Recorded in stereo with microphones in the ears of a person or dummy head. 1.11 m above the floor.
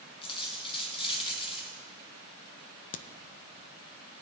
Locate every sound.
0.2 s a dropped coin: 30° left (ahead or behind), 2.5 m
2.9 s a crack: 35° left (ahead or behind), 0.6 m